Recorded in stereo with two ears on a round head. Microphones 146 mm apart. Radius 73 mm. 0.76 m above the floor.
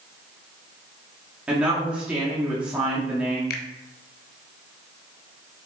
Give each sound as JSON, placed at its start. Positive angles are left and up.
{"t": 1.5, "sound": "a woman speaking", "side_deg": -10, "distance_m": 1.9}
{"t": 3.5, "sound": "a finger snap", "side_deg": 65, "distance_m": 0.9}